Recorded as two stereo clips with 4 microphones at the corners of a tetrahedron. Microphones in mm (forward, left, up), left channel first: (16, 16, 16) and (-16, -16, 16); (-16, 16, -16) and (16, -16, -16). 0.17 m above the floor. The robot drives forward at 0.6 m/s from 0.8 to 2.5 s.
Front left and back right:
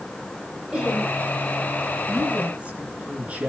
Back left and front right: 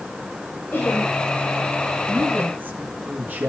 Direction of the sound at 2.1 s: 75° right.